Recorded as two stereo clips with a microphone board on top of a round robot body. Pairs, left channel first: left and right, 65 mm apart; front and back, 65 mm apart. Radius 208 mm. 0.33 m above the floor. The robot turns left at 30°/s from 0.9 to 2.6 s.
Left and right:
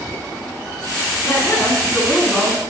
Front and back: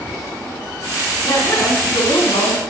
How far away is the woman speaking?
About 6 m.